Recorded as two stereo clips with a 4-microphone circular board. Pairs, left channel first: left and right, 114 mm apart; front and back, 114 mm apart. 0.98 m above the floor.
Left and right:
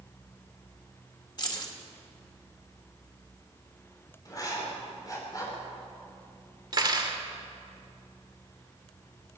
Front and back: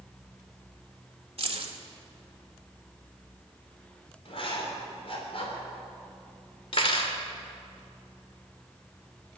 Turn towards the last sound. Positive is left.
turn(degrees=-40)